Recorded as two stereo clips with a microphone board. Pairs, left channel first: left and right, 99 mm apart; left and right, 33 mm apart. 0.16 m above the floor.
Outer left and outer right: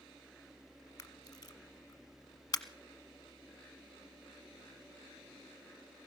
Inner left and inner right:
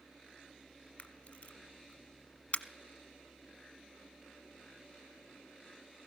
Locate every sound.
1.0 s a camera shutter: 35° left (ahead or behind), 1.1 m